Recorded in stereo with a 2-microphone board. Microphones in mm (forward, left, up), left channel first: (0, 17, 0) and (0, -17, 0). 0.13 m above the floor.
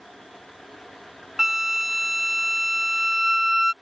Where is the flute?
10° right (ahead or behind).